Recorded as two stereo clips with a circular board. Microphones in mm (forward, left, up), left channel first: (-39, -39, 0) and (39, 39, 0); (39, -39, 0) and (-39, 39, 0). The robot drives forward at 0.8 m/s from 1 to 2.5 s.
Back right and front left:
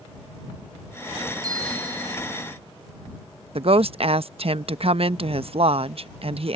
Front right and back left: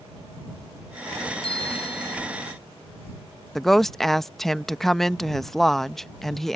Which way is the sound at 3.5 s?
40° left.